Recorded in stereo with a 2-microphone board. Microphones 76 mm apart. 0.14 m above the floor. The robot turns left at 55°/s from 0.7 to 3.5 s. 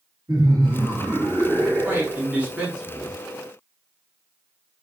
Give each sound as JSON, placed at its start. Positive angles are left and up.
{"t": 0.3, "sound": "laughter", "azimuth_deg": -105, "distance_m": 2.0}
{"t": 1.8, "sound": "a man speaking", "azimuth_deg": -115, "distance_m": 1.5}